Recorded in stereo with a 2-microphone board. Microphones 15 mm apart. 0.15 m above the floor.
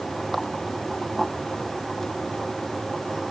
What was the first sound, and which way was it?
Only background noise.